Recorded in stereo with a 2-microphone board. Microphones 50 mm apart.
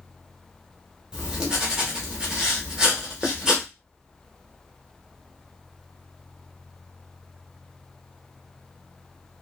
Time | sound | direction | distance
1.1 | writing | 15° right (ahead or behind) | 1.0 m